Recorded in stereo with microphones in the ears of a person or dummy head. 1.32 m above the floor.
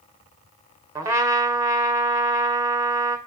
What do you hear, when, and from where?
0.9 s a trumpet: 20° right (ahead or behind), 2.0 m